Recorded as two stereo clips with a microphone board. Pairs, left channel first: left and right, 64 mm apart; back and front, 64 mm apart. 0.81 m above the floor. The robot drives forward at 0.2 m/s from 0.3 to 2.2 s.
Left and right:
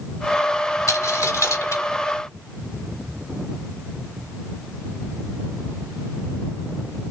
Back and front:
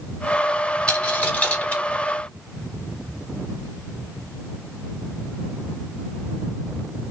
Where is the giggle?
I don't hear a giggle.